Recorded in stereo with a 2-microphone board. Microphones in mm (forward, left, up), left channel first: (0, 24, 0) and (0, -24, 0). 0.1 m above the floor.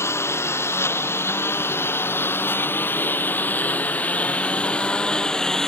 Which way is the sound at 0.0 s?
65° left (ahead or behind).